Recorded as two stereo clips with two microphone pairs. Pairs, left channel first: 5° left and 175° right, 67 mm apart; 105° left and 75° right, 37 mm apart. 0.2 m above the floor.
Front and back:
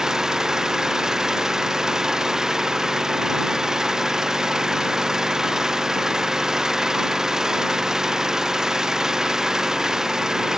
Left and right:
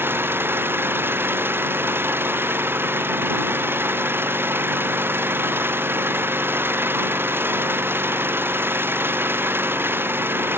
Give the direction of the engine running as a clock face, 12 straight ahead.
3 o'clock.